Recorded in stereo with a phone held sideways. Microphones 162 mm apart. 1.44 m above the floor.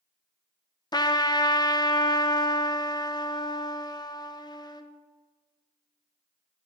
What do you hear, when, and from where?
0.9 s a trumpet: 25° left (ahead or behind), 0.5 m